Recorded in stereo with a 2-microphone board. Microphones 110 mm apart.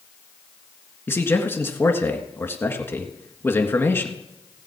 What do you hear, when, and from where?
1.1 s a man speaking: 20° left (ahead or behind), 1.5 m